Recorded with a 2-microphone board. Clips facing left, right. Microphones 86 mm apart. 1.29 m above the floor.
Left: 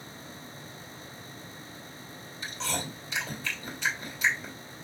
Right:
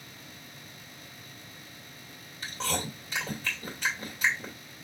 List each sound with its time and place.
2.4 s chewing: 45° right (ahead or behind), 2 m